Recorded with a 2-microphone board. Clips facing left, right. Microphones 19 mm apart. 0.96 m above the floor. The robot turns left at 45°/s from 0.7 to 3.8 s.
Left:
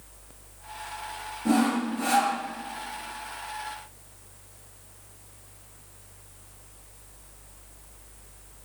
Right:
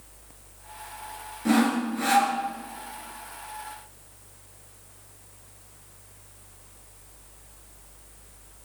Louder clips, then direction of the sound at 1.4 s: Right 1 dB; 85° right.